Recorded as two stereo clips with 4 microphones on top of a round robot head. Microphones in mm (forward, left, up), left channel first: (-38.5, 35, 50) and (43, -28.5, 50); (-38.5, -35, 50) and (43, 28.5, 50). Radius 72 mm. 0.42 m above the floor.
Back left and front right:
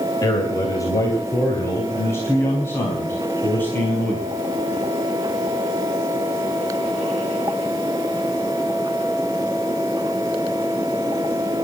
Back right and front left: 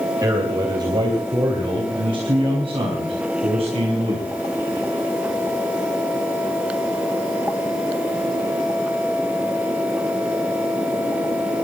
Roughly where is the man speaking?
Left.